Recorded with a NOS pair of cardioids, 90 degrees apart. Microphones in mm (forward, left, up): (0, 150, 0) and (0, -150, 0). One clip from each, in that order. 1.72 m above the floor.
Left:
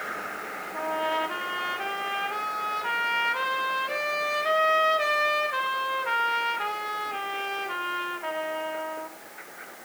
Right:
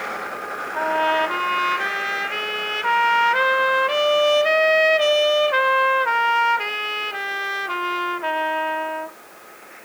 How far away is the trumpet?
About 2.0 m.